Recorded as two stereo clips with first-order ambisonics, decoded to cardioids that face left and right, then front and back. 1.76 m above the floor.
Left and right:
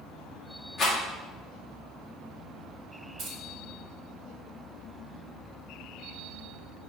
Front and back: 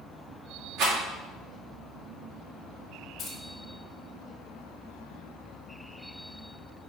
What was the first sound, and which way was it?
A rattle, 160° left.